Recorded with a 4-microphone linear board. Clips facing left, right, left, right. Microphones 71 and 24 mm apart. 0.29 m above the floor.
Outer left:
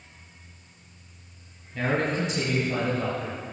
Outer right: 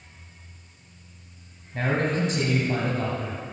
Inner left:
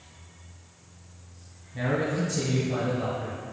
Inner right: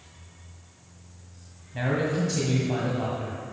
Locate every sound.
1.7 s a man speaking: 45° right (ahead or behind), 1.7 m